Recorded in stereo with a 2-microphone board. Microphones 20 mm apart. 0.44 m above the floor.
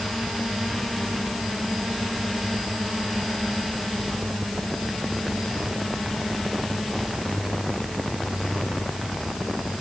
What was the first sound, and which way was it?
Only background noise.